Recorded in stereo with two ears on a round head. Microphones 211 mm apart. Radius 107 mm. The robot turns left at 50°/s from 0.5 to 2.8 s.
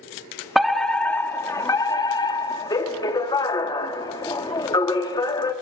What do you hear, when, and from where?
0.6 s a fire alarm: centre (ahead or behind), 1.6 m; by 5.5 s 20° left (ahead or behind), 1.6 m